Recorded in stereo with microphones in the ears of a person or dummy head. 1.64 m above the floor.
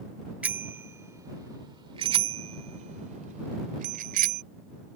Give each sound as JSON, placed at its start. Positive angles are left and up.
{"t": 0.4, "sound": "a bicycle bell", "side_deg": -5}